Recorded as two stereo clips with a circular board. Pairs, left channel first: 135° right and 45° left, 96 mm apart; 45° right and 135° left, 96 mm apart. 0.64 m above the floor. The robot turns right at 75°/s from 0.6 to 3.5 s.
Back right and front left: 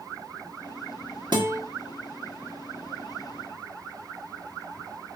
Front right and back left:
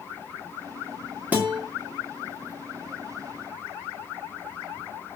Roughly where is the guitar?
Ahead left.